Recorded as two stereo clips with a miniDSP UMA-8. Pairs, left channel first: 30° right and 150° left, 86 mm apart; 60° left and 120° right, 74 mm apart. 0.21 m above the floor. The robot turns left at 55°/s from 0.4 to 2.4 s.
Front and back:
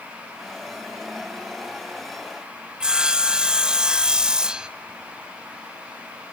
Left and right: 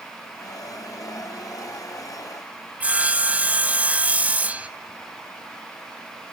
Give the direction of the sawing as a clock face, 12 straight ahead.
5 o'clock.